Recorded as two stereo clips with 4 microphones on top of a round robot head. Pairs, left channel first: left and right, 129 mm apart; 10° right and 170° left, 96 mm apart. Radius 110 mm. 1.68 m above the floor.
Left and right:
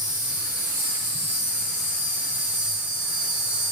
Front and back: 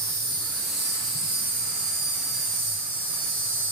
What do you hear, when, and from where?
0.0 s an insect: 165° right, 4 m